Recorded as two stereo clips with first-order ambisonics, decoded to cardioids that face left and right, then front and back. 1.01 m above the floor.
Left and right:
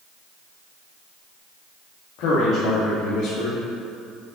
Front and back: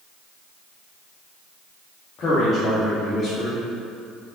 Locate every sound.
2.2 s a man speaking: 60° left, 1.7 m